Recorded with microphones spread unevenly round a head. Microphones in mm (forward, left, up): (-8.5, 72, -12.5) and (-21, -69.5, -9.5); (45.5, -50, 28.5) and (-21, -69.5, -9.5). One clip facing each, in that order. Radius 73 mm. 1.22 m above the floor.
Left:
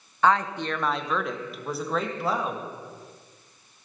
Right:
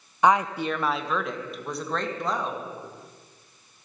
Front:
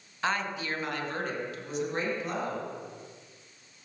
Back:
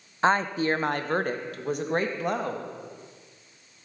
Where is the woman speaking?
170° right, 0.8 m; by 2.7 s 170° left, 2 m.